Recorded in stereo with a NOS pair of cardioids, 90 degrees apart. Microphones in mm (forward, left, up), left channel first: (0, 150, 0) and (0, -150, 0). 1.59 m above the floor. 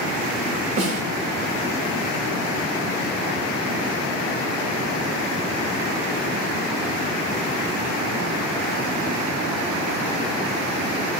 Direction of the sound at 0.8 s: 25° right.